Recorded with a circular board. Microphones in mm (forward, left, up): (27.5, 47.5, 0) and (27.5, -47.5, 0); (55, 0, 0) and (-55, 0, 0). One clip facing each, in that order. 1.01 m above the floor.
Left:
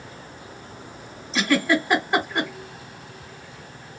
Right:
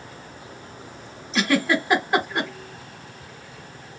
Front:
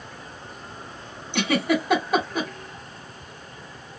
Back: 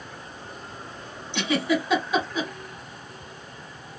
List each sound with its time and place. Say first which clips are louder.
1.3 s a giggle: even, front 2 dB; 5° right, 1.2 m